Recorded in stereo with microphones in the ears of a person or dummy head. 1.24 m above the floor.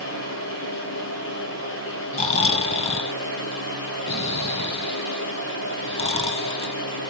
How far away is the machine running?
About 7 m.